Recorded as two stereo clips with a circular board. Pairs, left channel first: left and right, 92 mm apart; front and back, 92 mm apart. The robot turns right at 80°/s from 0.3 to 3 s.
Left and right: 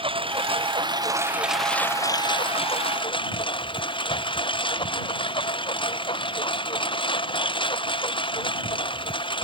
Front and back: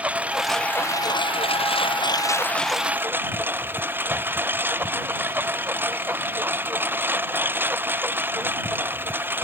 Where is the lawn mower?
105° right; by 9.4 s 115° left.